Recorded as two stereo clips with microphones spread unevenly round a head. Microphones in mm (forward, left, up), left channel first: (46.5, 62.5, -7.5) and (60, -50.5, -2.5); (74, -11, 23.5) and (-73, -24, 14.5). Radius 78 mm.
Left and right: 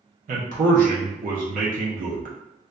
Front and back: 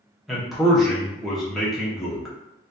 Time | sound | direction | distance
0.3 | a man speaking | 85° right | 0.7 m